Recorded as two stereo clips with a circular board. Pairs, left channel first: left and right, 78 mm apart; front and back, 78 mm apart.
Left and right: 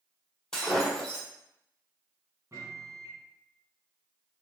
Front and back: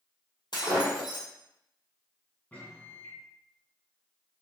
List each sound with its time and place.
0.5 s breaking glass: 10° left, 1.8 m
2.5 s a microwave: 65° right, 1.5 m